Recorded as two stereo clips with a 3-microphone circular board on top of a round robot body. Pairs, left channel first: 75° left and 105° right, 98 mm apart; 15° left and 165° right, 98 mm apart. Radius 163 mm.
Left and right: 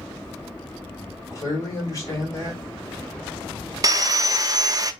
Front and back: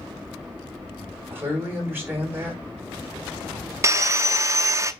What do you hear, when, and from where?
1.0 s a man speaking: 130° left, 3 m
3.8 s sawing: 125° right, 0.7 m